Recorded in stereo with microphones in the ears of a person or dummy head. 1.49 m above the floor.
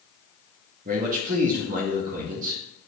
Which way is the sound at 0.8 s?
45° right (ahead or behind).